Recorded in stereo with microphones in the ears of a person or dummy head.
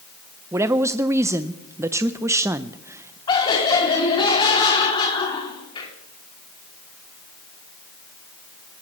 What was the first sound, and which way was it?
A woman speaking, 10° right (ahead or behind).